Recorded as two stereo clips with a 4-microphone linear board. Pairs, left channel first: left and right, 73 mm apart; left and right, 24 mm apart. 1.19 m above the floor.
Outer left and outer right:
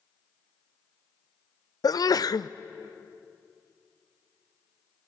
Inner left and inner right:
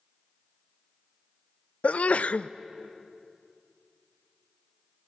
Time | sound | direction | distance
1.8 | a sneeze | 60° left (ahead or behind) | 0.6 m